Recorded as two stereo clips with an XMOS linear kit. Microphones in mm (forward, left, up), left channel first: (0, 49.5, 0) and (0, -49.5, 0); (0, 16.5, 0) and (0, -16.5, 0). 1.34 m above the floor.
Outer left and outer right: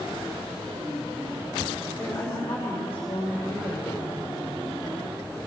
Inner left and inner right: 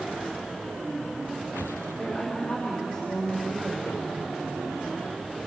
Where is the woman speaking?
50° left (ahead or behind), 6 m.